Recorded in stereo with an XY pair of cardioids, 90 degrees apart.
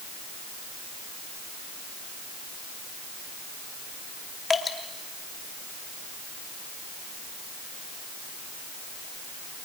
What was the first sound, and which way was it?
Dripping, 40° left.